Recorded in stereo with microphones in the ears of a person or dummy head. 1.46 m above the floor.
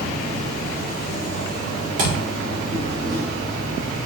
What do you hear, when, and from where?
0.0 s an insect: 40° right (ahead or behind), 2 m
2.0 s a thud: 45° right (ahead or behind), 1.5 m